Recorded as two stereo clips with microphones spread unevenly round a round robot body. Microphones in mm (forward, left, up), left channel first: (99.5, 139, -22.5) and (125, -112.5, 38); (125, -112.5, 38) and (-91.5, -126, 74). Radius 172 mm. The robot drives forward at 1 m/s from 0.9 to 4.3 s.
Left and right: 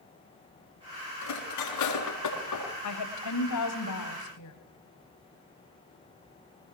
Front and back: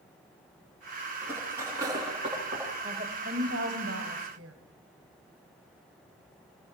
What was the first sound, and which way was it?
Cutlery clinking, 100° left.